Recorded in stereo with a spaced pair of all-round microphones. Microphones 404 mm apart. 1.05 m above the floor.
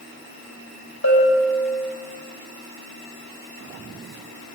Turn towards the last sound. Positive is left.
turn(degrees=40)  # may be behind; listen again after turning